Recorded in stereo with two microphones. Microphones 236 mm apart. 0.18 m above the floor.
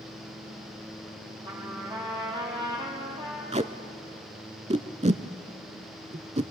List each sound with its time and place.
1.4 s a trumpet: 20° right (ahead or behind), 4.5 m
3.5 s tape being pulled: 25° right (ahead or behind), 0.6 m